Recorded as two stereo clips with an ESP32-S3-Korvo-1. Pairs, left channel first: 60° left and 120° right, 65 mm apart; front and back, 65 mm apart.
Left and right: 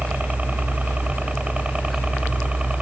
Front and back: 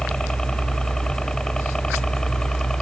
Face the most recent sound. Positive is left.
turn(degrees=-70)